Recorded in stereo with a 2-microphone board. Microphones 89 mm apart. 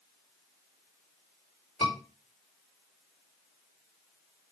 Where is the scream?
80° left, 4 m.